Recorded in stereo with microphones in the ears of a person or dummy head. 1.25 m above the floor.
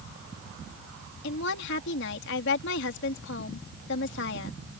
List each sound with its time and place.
1.2 s a woman speaking: 55° left (ahead or behind)